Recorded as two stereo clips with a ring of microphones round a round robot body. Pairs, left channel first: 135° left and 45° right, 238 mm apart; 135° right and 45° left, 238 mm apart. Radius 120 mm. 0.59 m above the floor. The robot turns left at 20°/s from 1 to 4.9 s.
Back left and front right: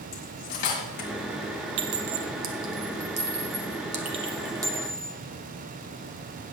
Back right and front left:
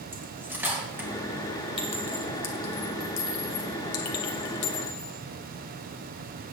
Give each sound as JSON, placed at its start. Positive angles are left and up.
{"t": 0.1, "sound": "cutlery clinking", "azimuth_deg": 125, "distance_m": 2.0}
{"t": 1.8, "sound": "a clink", "azimuth_deg": -65, "distance_m": 1.4}